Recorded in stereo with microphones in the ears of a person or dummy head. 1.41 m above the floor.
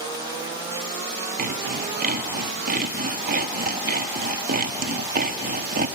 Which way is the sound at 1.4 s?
45° right (ahead or behind).